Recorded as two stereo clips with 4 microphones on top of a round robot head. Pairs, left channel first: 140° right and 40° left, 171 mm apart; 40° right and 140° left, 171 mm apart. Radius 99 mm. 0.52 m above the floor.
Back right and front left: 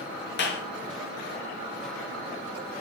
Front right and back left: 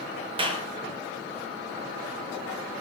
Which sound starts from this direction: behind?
A clap, at 0.4 s.